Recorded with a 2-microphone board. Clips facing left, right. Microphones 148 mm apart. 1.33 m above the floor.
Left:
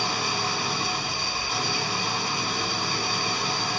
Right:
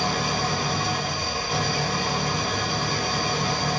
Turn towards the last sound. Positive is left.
turn(degrees=-50)  # may be behind; listen again after turning